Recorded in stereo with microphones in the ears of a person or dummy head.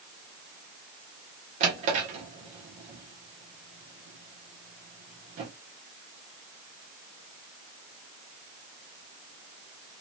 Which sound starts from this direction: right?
A drawer, at 1.6 s.